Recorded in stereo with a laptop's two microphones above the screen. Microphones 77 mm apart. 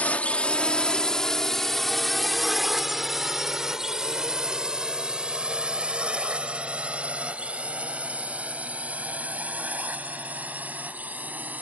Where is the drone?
20° left (ahead or behind); by 11.6 s 20° right (ahead or behind).